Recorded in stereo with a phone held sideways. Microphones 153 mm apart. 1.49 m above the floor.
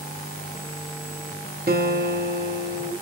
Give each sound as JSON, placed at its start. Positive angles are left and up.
{"t": 1.7, "sound": "a guitar", "side_deg": -75, "distance_m": 1.0}